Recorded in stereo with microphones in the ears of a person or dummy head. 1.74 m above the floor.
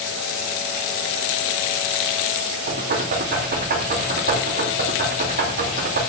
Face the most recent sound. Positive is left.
turn(degrees=-55)  # may be behind; listen again after turning